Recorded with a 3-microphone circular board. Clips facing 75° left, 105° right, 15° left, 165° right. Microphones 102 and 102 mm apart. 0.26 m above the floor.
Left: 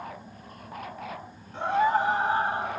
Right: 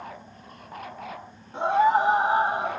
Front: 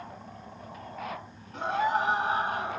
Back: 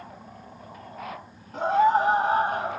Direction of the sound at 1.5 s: 160° right.